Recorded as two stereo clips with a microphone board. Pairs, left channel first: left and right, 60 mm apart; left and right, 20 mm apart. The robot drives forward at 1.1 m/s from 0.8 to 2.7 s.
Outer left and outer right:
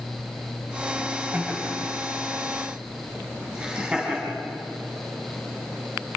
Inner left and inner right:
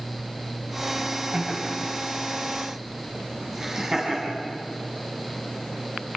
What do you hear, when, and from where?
1.3 s laughter: 25° right (ahead or behind), 3.5 m; by 4.4 s 15° right (ahead or behind), 5 m